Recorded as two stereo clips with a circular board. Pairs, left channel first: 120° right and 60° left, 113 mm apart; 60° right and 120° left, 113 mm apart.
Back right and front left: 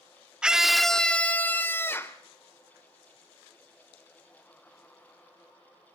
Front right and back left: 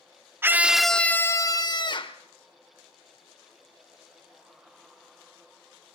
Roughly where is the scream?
Behind left.